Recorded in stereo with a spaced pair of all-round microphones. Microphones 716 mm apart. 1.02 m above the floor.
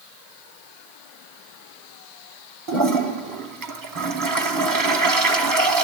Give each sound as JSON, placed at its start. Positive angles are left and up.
{"t": 2.7, "sound": "a toilet flushing", "side_deg": -30, "distance_m": 0.7}